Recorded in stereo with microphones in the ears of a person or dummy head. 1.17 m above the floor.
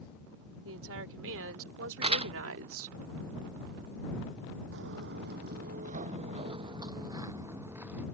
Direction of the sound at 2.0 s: 30° right (ahead or behind).